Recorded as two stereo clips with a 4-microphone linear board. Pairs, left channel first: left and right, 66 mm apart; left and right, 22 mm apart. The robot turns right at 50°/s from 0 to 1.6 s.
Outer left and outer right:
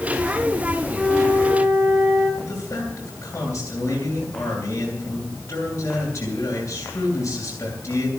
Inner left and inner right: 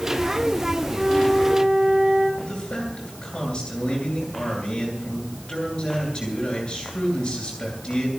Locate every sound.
0.9 s a flute: 175° left, 4.5 m; by 2.3 s 150° right, 4.5 m
2.4 s a man speaking: 40° left (ahead or behind), 10 m